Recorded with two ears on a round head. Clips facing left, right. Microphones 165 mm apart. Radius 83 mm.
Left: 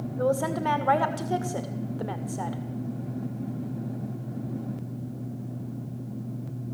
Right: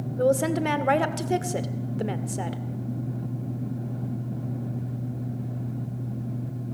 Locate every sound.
0.2 s a woman speaking: 25° right (ahead or behind), 2 m